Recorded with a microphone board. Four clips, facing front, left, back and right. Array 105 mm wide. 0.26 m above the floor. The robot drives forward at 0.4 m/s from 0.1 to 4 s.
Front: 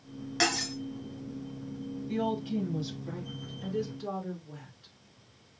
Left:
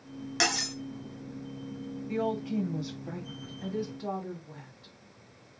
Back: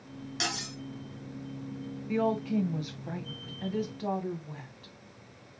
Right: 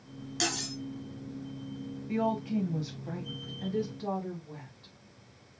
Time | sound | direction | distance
0.4 | cutlery clinking | 55° left | 1.3 m
2.1 | a woman speaking | straight behind | 1.4 m